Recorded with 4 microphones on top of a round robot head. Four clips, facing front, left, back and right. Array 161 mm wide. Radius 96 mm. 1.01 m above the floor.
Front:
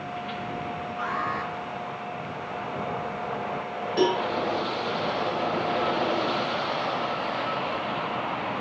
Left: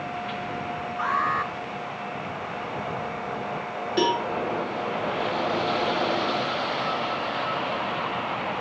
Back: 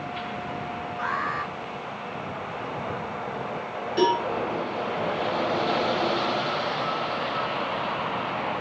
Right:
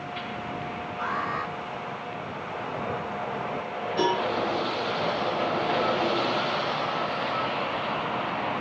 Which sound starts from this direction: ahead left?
An alarm, at 1.0 s.